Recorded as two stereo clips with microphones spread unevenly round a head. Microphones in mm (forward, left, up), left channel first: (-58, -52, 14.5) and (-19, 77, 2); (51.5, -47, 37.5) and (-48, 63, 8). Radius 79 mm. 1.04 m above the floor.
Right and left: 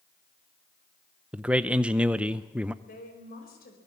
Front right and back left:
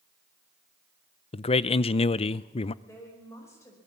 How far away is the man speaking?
About 0.5 m.